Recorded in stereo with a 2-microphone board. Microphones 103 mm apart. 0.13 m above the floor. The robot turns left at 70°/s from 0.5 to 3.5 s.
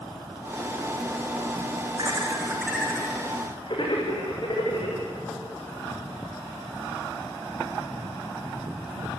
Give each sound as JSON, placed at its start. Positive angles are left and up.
{"t": 2.0, "sound": "laughter", "side_deg": -50, "distance_m": 7.0}